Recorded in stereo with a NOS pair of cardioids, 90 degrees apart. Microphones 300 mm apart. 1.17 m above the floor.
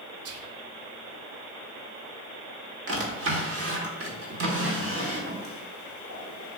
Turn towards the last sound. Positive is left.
turn(degrees=-45)